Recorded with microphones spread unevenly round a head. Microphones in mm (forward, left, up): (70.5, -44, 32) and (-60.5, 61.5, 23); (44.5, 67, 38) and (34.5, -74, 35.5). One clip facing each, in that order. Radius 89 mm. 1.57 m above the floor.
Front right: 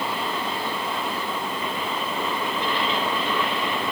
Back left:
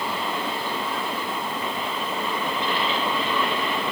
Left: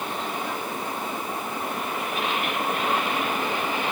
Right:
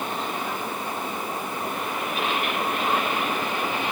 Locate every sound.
Only background noise.